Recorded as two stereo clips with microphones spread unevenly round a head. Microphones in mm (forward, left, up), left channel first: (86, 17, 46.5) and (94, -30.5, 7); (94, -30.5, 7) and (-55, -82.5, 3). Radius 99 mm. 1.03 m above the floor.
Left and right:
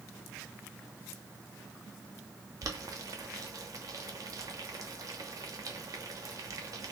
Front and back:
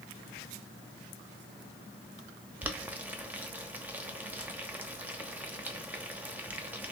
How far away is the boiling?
About 1.0 m.